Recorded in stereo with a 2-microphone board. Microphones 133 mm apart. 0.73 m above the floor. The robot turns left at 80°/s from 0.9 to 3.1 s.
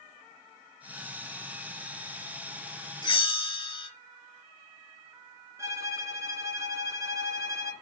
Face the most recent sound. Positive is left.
turn(degrees=-25)  # may be behind; listen again after turning